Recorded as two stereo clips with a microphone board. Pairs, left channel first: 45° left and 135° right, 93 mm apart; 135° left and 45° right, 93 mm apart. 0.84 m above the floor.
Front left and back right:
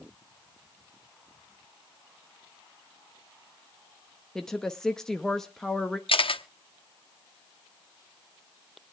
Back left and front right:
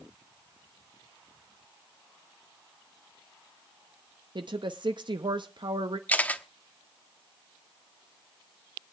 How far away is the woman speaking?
About 0.7 m.